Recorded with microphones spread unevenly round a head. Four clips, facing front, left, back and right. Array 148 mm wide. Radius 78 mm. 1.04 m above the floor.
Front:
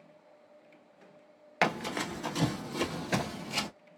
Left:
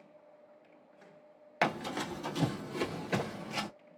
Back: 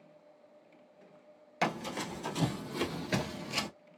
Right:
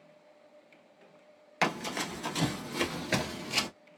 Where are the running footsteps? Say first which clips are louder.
Right 1 dB, front 3 dB; 5° left, 1.1 m; by 3.7 s 115° right, 1.4 m.